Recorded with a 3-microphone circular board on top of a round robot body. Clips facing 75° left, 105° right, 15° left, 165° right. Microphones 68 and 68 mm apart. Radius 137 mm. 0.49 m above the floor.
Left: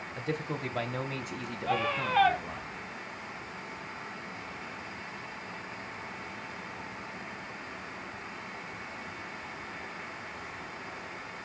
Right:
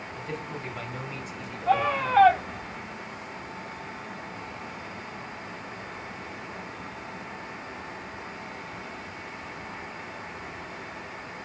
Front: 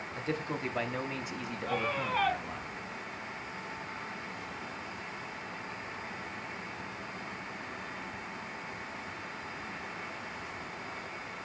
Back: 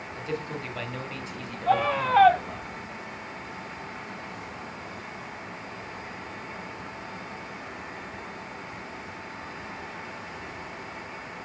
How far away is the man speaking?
About 3.5 m.